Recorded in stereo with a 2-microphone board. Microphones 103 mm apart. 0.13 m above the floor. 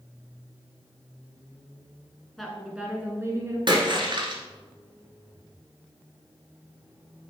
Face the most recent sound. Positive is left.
turn(degrees=-50)  # may be behind; listen again after turning